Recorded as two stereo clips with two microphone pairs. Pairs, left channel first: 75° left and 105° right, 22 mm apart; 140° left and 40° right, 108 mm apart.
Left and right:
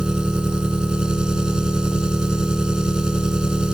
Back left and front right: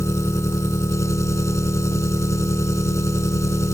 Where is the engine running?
155° right.